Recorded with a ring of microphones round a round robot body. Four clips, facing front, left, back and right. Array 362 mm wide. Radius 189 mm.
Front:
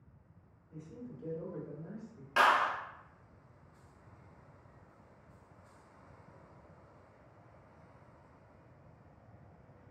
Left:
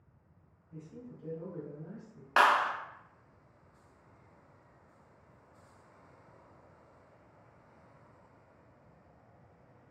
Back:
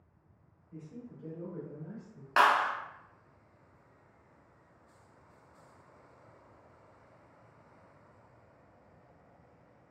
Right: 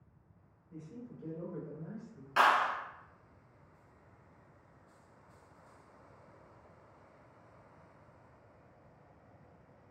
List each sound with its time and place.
0.7 s a man speaking: 40° right, 1.7 m; by 2.3 s 100° right, 1.3 m
2.4 s a clap: 110° left, 0.7 m